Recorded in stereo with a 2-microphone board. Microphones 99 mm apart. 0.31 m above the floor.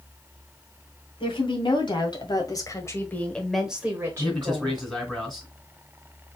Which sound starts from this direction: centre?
A man speaking, at 4.2 s.